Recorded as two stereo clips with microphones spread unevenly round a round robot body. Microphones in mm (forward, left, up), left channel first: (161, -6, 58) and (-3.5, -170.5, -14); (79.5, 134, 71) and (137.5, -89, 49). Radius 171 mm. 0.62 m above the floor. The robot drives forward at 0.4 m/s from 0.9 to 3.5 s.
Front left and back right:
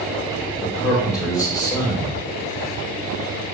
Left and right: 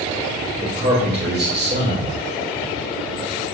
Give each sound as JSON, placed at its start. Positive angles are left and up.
{"t": 0.6, "sound": "a man speaking", "azimuth_deg": -35, "distance_m": 3.0}